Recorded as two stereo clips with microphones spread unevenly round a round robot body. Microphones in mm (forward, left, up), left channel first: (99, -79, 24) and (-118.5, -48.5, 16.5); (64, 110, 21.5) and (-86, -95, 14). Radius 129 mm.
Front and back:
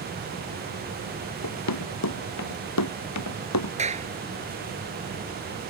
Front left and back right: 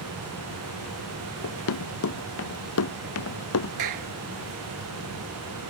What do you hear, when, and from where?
1.4 s running footsteps: 15° left; by 3.7 s 20° left
3.8 s a clap: 130° right